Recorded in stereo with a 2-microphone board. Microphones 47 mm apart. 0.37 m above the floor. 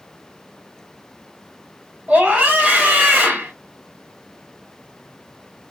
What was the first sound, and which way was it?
A scream, 30° right (ahead or behind).